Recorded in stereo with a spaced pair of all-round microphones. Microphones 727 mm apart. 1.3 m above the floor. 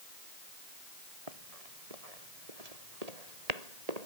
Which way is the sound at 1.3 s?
50° right (ahead or behind).